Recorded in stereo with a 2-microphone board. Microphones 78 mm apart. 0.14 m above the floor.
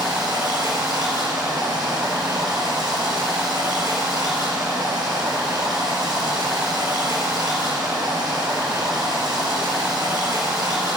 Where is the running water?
65° right (ahead or behind), 1.8 m.